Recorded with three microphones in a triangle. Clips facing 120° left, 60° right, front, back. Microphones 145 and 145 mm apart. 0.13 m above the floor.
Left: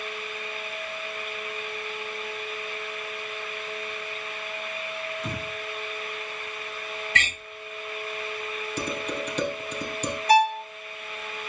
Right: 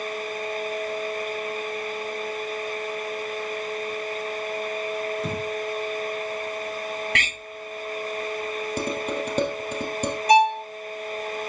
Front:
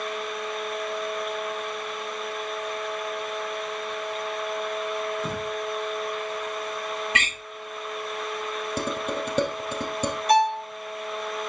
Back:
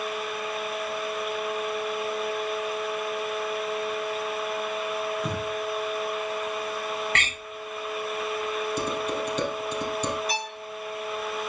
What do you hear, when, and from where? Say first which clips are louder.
5.2 s breathing: right 5 dB, even; 85° right, 3 m
7.2 s a door slam: even, front 1 dB; 80° right, 7.5 m
8.8 s dishes clattering: right 2 dB, even; 30° right, 3 m
10.3 s a violin: right 2 dB, front 13 dB; 10° left, 0.8 m